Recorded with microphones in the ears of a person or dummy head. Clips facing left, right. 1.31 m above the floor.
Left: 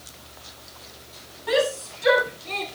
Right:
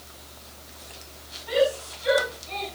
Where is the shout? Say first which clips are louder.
Even; 80° left, 9 m.